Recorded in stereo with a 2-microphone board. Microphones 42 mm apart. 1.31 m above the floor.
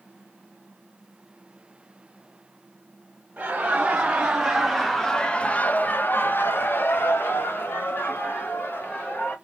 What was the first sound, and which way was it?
Laughter, 30° right (ahead or behind).